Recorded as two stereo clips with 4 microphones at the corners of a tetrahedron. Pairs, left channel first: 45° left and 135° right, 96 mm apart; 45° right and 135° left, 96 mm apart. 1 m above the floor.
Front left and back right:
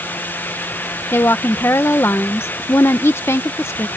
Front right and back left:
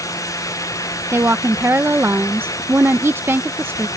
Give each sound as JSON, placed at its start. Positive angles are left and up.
{"t": 1.1, "sound": "a woman speaking", "azimuth_deg": 90}